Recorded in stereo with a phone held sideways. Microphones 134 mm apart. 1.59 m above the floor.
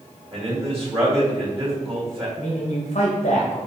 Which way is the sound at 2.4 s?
60° left (ahead or behind).